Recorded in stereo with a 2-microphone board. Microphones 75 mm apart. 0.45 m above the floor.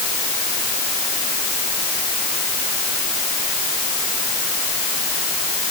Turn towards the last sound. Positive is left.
No sound to turn to.